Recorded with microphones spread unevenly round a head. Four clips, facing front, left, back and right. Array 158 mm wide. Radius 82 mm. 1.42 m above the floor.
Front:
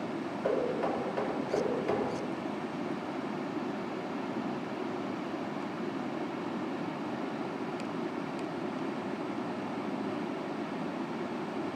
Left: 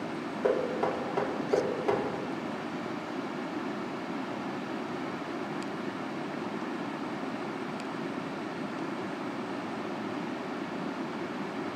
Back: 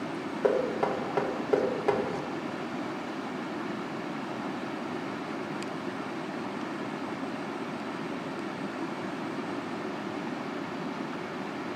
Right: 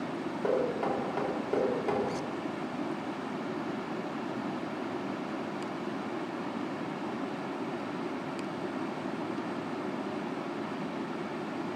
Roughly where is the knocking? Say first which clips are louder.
Left 1 dB, back 4 dB; behind.